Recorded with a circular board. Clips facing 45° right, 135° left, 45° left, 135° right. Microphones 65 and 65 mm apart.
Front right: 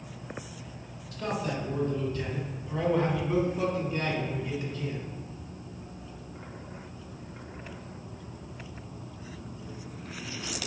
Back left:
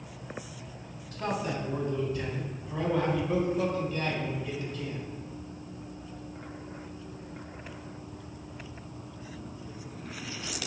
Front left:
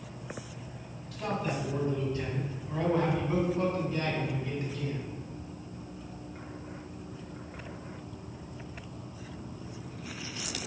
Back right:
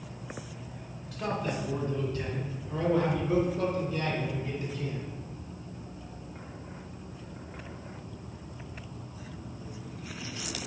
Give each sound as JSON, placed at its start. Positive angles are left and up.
{"t": 1.1, "sound": "a man speaking", "azimuth_deg": 140, "distance_m": 1.3}